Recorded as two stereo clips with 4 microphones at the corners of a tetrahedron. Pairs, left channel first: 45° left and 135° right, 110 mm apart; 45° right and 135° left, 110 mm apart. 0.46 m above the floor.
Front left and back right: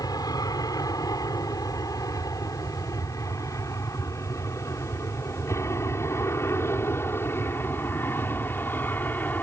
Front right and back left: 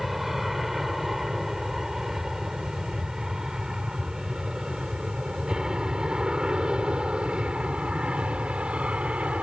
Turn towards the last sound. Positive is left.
turn(degrees=80)